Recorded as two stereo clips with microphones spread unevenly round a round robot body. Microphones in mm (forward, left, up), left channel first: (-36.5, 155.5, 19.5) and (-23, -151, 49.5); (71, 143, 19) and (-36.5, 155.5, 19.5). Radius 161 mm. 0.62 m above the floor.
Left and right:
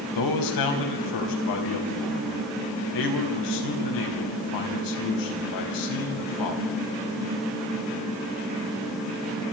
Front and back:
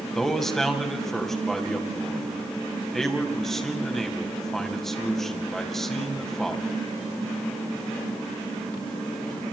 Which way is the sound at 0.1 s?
80° left.